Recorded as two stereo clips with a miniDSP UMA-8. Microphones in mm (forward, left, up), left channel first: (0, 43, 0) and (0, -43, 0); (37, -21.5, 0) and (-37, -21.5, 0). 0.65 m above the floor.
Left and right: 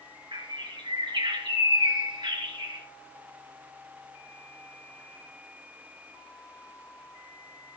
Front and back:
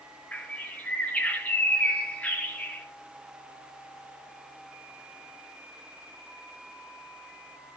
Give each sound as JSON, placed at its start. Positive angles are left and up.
{"t": 0.3, "sound": "a bird", "azimuth_deg": -70, "distance_m": 3.5}